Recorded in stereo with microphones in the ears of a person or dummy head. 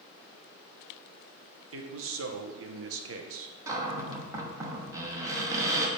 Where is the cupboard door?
15° right (ahead or behind), 1.3 m.